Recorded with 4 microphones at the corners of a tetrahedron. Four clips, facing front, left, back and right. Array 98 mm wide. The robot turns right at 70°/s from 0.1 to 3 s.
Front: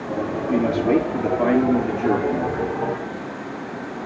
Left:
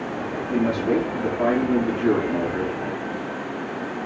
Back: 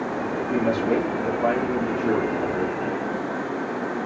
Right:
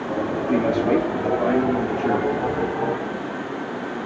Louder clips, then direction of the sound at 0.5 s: Right 2 dB, front 4 dB; 70° right.